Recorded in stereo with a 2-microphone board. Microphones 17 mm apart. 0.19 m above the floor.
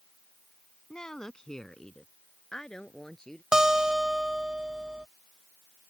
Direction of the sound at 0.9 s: 40° left (ahead or behind).